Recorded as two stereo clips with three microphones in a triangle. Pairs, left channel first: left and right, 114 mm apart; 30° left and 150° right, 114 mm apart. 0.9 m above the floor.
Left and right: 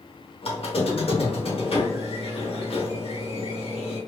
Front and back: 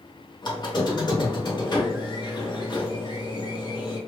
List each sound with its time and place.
0.4 s a squeak: 75° left, 0.9 m